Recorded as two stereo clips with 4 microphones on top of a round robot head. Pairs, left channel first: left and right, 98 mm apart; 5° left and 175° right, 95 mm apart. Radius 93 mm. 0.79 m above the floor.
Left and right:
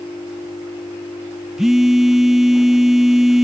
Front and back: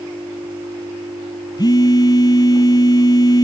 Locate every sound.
1.6 s a phone buzzing: 5° right